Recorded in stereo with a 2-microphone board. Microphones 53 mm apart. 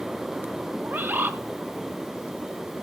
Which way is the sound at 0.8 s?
40° right (ahead or behind).